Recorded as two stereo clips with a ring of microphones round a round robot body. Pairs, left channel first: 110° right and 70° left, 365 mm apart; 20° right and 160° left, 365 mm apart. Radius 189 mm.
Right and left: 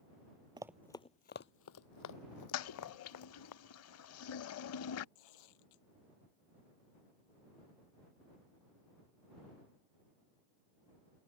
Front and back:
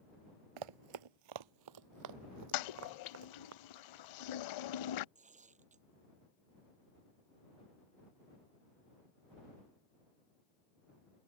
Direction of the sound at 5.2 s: 130° right.